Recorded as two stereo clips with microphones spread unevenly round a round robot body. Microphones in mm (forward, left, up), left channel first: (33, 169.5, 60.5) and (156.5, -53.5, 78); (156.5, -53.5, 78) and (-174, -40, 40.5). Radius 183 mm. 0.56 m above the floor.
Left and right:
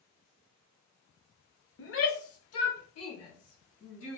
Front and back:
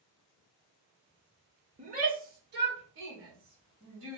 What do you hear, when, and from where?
1.8 s a shout: 115° left, 1.0 m; by 4.2 s 130° left, 2 m